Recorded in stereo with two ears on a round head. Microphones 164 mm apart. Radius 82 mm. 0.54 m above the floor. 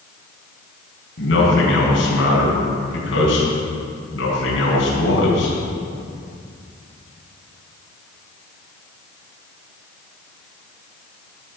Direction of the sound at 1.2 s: 75° left (ahead or behind).